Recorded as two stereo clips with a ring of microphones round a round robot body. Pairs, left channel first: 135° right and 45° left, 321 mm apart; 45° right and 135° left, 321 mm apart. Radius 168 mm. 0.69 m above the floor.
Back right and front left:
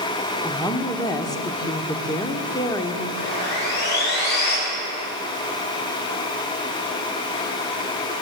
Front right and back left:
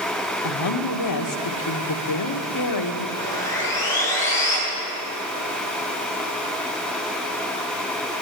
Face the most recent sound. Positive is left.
turn(degrees=-125)